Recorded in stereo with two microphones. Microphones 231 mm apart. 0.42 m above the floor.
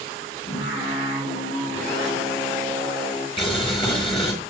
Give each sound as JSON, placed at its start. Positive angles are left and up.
{"t": 0.5, "sound": "singing", "side_deg": 60, "distance_m": 7.5}
{"t": 3.4, "sound": "boiling", "side_deg": 20, "distance_m": 4.0}